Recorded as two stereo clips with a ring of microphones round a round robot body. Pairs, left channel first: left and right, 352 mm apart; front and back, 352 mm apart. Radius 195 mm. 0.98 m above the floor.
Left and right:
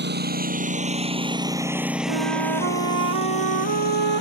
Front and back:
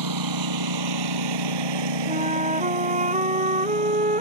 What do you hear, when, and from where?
0.0 s a lawn mower: 150° right; by 4.2 s 150° left
2.1 s a flute: 110° right